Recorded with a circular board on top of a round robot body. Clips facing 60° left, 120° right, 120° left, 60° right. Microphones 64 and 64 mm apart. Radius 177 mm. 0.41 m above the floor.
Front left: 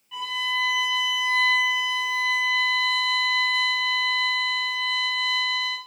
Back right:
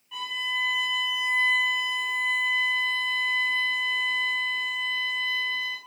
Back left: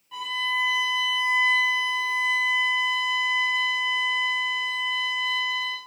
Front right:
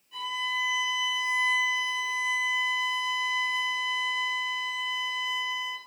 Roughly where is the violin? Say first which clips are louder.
Front left 3 dB, back left 4 dB; behind left.